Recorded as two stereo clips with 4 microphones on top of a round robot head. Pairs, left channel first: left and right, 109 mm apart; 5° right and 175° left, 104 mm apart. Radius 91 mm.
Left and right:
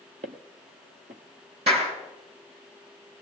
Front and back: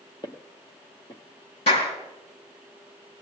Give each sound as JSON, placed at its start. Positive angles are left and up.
{"t": 0.2, "sound": "footsteps", "azimuth_deg": -70, "distance_m": 1.2}
{"t": 1.7, "sound": "a clap", "azimuth_deg": -45, "distance_m": 5.5}